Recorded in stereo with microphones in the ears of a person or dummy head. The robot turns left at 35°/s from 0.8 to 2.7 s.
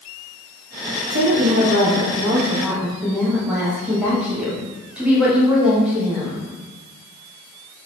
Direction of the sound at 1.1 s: 115° right.